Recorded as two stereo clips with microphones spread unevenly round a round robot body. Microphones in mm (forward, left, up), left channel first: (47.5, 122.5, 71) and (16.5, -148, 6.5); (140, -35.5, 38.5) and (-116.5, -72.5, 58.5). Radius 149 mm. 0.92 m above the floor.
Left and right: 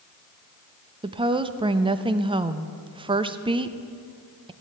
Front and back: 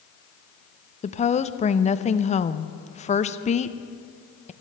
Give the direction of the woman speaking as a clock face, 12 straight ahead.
1 o'clock.